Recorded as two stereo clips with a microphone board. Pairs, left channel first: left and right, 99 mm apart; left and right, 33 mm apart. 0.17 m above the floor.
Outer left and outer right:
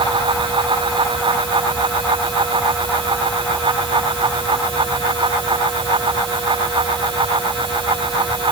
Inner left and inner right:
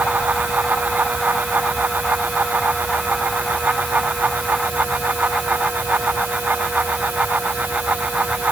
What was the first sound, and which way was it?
Only background noise.